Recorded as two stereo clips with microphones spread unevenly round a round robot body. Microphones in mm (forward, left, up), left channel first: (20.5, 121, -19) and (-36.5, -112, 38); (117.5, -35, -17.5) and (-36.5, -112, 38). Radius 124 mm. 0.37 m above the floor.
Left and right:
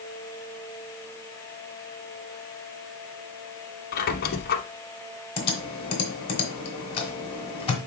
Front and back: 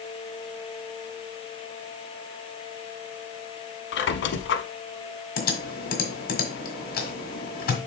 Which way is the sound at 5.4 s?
15° left.